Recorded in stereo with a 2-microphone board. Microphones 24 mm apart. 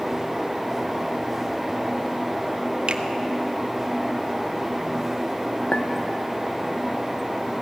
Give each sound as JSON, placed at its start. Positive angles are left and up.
{"t": 2.9, "sound": "a finger snap", "side_deg": -45, "distance_m": 1.2}
{"t": 5.7, "sound": "a clink", "side_deg": 70, "distance_m": 1.3}